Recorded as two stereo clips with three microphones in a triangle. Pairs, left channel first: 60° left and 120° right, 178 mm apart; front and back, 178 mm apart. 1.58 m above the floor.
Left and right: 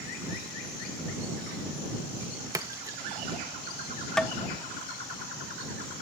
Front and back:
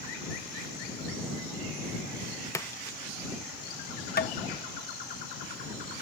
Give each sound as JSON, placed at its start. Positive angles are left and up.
{"t": 2.5, "sound": "a splash", "azimuth_deg": -60}
{"t": 4.2, "sound": "tapping", "azimuth_deg": -25}